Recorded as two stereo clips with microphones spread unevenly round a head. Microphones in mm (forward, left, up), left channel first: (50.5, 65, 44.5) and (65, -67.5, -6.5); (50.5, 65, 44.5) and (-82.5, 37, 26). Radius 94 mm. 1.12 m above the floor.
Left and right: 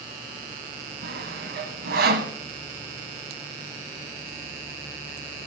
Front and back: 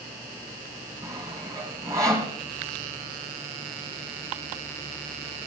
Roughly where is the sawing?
Right.